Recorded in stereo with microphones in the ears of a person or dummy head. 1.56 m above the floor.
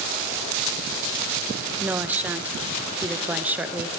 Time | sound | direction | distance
1.8 | a woman speaking | 10° right (ahead or behind) | 0.9 m